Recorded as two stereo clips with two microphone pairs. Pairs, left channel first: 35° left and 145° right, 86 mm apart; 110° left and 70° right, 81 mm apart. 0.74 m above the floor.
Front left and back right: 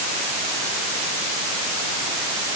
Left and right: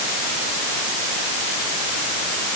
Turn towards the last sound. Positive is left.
No sound to turn to.